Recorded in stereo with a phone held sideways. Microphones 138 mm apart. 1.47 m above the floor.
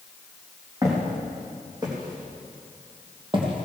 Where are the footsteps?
25° right (ahead or behind), 4.5 m; by 3.6 s 40° right (ahead or behind), 3 m.